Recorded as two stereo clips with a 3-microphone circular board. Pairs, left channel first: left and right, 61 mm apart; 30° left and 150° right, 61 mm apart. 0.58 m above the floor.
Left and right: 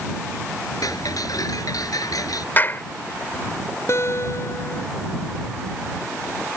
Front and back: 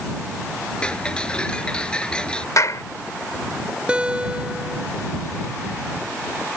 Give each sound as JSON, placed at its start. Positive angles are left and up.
{"t": 0.8, "sound": "ticking", "azimuth_deg": 100}
{"t": 2.6, "sound": "a clap", "azimuth_deg": 40}
{"t": 3.9, "sound": "a guitar", "azimuth_deg": 135}